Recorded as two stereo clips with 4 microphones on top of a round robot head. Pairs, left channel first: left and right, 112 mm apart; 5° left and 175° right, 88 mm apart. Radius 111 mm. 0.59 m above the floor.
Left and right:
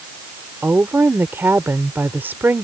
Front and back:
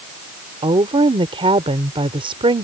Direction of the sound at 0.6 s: 165° right.